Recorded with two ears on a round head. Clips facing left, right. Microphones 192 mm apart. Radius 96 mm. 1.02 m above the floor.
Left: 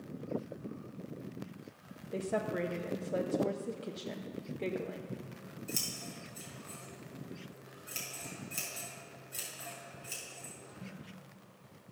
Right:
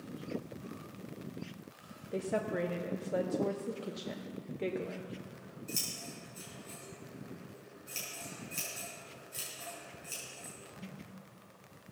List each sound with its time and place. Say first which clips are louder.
2.1 s a woman speaking: even; centre (ahead or behind), 0.7 m
5.1 s scissors: left 1 dB; 10° left (ahead or behind), 4.5 m